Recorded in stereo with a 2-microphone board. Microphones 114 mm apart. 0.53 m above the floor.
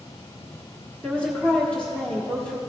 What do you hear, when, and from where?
1.0 s a woman speaking: 10° left (ahead or behind), 1.3 m